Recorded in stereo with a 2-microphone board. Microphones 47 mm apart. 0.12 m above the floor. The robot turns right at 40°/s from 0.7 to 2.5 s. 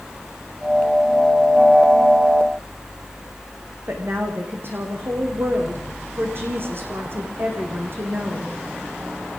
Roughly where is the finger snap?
I don't hear a finger snap.